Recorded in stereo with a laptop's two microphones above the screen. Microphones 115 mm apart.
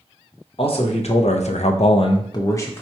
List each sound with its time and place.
0.6 s a man speaking: 55° left (ahead or behind), 0.8 m; by 2.8 s 20° left (ahead or behind), 0.7 m